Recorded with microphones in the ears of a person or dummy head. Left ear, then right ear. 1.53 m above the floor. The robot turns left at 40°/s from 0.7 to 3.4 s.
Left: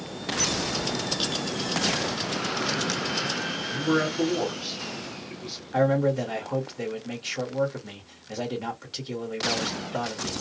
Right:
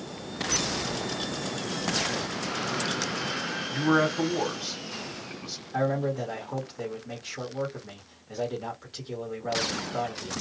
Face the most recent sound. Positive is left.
turn(degrees=30)  # may be behind; listen again after turning